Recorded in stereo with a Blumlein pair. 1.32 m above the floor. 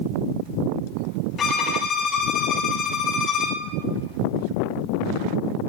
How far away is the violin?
About 1.6 m.